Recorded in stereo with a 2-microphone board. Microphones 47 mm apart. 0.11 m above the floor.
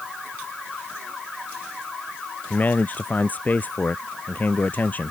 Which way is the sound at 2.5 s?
35° left (ahead or behind).